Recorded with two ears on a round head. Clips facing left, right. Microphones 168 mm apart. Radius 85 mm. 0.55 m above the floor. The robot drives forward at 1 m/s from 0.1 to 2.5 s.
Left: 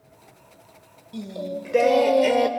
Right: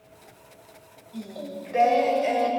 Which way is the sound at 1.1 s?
40° left (ahead or behind).